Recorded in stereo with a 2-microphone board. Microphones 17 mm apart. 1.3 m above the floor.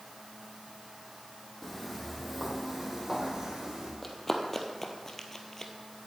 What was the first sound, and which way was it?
Footsteps, 10° left (ahead or behind).